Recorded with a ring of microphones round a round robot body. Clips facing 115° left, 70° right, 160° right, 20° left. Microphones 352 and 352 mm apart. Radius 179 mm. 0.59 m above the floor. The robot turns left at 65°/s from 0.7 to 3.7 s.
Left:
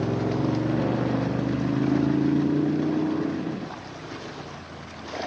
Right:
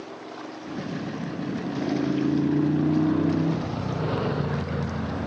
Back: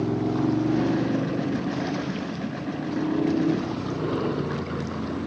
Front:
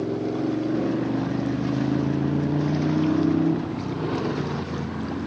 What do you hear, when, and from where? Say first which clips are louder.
0.0 s a motorcycle: left 13 dB, back 1 dB; 135° left; by 5.3 s 60° right